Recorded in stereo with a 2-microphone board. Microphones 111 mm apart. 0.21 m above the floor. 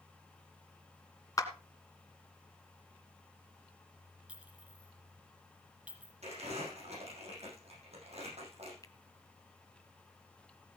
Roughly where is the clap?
Left.